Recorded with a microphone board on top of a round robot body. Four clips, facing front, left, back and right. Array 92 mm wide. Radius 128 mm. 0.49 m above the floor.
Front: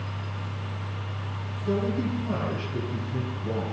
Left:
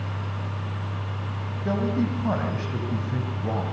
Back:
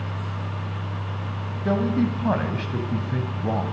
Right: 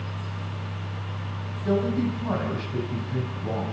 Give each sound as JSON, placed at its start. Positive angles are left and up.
{"t": 1.6, "sound": "a man speaking", "azimuth_deg": 165, "distance_m": 3.5}